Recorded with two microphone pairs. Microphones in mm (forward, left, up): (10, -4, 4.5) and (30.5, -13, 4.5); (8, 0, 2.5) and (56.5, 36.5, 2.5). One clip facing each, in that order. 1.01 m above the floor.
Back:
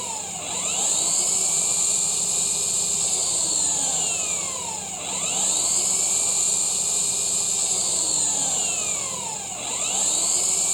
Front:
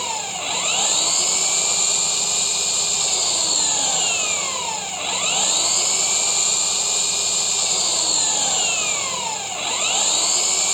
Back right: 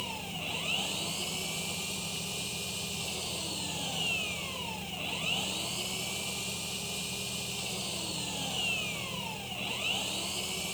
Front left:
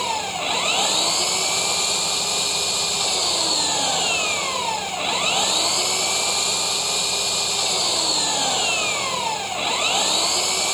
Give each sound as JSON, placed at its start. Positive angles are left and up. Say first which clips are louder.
{"t": 0.0, "sound": "an engine running", "louder": "front 6 dB, front left 15 dB", "azimuth_deg": 30}